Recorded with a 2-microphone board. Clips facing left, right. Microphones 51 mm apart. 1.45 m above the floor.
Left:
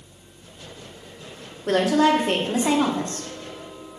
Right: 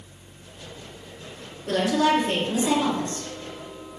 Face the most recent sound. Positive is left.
turn(degrees=50)  # may be behind; listen again after turning